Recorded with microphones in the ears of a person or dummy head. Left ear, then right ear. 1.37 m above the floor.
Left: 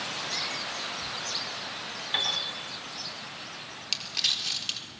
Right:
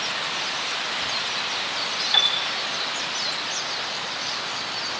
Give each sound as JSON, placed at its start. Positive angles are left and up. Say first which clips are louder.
{"t": 2.1, "sound": "a piano", "louder": "right 7 dB", "side_deg": -30, "distance_m": 3.5}
{"t": 3.9, "sound": "crumpling", "louder": "even", "side_deg": 55, "distance_m": 4.5}